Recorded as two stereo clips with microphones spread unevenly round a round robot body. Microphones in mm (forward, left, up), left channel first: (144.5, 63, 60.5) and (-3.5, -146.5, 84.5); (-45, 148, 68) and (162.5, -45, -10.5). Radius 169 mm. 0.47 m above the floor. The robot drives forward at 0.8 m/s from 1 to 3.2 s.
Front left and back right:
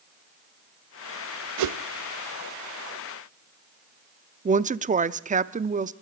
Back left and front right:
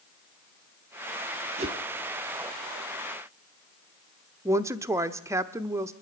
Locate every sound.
1.6 s a whoosh: 115° right, 0.5 m; by 1.8 s 130° right, 0.6 m
4.5 s a woman speaking: 80° right, 0.7 m